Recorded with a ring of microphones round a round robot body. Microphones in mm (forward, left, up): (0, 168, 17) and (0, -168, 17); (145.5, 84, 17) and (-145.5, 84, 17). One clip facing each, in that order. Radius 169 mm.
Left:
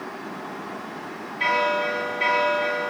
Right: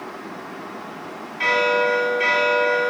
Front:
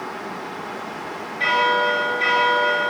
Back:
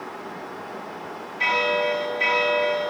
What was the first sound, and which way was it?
A bell, 135° right.